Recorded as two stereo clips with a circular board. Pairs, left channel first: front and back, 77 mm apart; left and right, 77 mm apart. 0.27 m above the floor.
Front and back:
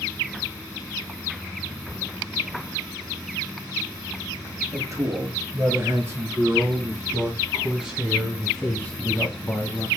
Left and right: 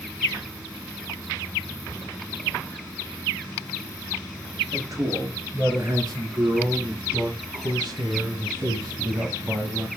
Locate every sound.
4.7 s a man speaking: 135° right, 5 m; by 9.9 s 35° right, 2 m